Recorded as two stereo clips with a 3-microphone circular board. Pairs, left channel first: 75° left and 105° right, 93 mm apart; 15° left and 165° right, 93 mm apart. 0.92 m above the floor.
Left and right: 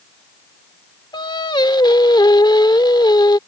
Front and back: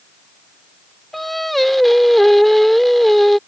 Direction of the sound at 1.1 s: 105° left.